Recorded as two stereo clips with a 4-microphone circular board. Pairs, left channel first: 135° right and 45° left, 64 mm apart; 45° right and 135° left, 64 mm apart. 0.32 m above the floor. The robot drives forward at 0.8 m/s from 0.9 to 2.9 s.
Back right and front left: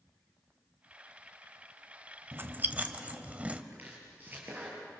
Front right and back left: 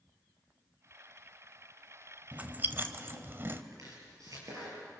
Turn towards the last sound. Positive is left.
turn(degrees=110)